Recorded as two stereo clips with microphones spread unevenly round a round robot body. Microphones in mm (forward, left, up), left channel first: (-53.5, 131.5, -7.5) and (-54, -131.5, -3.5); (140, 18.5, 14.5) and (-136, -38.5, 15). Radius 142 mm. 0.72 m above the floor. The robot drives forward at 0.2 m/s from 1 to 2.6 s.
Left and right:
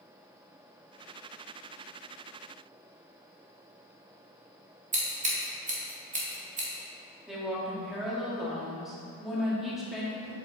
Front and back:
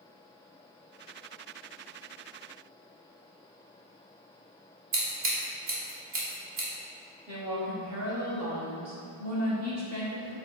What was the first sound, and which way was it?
Scissors, 155° right.